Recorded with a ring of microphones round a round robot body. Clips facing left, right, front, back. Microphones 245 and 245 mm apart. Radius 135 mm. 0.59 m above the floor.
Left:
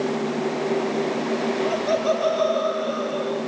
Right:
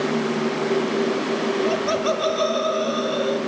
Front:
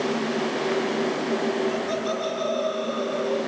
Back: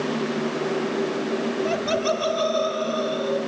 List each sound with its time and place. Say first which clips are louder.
1.6 s laughter: right 1 dB, back 2 dB; 175° right, 2.5 m; by 3.4 s 130° right, 3.5 m